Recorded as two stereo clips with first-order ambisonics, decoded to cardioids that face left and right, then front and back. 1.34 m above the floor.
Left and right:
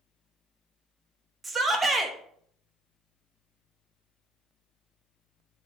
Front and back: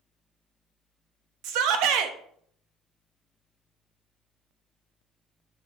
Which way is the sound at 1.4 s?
165° right.